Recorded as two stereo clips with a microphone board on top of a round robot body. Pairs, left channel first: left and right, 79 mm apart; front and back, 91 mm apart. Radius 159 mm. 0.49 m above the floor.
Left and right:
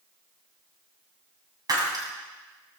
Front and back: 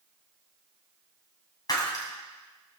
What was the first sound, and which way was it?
Breaking glass, 50° right.